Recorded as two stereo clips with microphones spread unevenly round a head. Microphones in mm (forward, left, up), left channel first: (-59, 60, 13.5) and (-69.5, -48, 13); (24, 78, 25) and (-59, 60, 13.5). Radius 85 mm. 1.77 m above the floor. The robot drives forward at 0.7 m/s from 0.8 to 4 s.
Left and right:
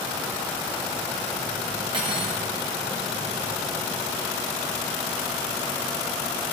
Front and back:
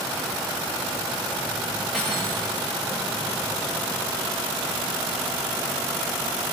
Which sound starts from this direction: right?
Cutlery clinking, at 1.9 s.